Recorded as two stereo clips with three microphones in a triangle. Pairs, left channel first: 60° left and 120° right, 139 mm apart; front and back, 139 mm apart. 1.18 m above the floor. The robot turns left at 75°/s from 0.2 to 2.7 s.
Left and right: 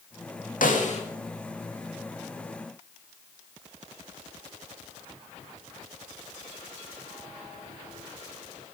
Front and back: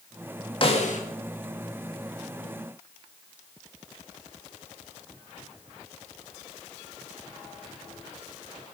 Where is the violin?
No violin in this recording.